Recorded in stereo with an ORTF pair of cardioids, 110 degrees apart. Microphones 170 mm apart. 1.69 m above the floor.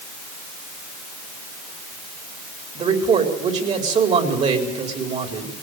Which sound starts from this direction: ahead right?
A man speaking, at 2.8 s.